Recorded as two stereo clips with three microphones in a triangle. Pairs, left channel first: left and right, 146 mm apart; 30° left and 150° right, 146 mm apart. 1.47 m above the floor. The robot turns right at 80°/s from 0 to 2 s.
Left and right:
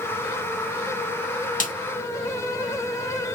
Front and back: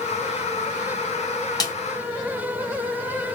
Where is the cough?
No cough in this recording.